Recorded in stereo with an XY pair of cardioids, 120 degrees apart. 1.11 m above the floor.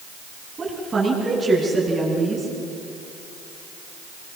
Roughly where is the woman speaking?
Ahead right.